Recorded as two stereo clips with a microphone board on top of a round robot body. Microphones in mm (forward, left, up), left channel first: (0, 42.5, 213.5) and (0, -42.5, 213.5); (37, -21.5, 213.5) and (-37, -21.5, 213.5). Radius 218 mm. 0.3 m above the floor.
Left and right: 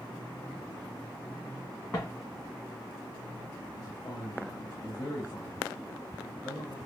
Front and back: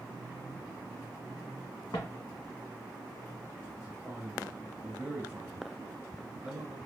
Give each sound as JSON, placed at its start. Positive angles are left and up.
{"t": 1.9, "sound": "footsteps", "azimuth_deg": 25, "distance_m": 1.4}
{"t": 3.8, "sound": "a man speaking", "azimuth_deg": 105, "distance_m": 1.7}